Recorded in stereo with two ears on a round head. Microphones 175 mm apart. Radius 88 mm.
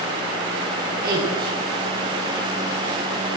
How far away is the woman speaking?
About 9.5 m.